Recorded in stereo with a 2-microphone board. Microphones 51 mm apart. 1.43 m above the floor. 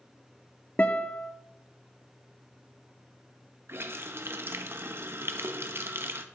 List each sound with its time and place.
0.8 s a guitar: 30° left (ahead or behind), 1.1 m
3.7 s a running tap: 50° right (ahead or behind), 1.0 m